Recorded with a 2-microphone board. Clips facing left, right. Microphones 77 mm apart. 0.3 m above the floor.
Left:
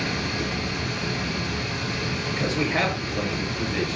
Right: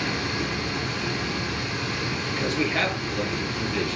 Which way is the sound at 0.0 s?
35° right (ahead or behind).